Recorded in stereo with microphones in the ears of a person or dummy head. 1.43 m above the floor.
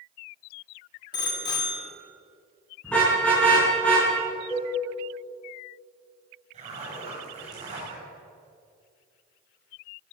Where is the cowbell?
5° left (ahead or behind), 6.5 m.